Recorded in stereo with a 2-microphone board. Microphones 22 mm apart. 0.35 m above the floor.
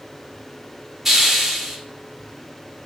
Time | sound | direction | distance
1.1 | a hiss | 15° right (ahead or behind) | 0.6 m